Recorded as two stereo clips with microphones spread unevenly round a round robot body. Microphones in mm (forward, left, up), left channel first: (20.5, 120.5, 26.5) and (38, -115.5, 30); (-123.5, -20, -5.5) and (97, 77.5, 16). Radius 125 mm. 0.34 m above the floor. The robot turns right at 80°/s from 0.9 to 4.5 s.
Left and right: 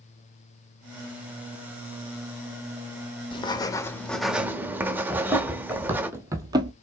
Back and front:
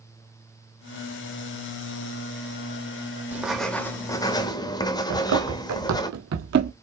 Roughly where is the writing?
Left.